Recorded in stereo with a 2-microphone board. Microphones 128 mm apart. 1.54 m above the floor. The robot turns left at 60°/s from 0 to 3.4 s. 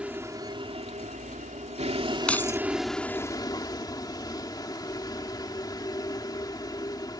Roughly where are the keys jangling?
Centre.